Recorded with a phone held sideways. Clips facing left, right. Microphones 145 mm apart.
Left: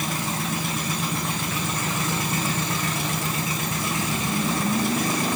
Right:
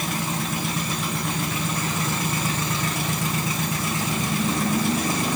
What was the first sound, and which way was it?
Only background noise.